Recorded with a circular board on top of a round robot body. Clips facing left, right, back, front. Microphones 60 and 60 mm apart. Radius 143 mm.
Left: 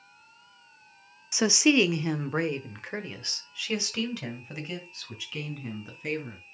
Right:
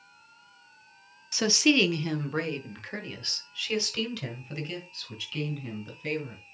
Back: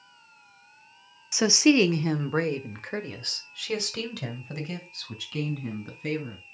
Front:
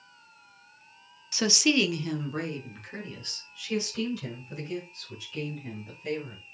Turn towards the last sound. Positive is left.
turn(degrees=165)